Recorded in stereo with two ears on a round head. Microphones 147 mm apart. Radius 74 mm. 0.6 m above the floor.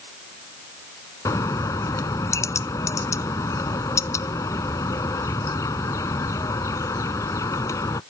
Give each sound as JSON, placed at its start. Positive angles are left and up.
{"t": 1.2, "sound": "a bird", "side_deg": 20}